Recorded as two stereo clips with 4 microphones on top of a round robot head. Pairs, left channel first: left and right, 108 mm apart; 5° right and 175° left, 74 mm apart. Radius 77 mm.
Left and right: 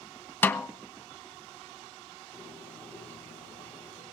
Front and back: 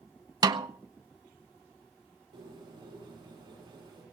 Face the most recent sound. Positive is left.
turn(degrees=165)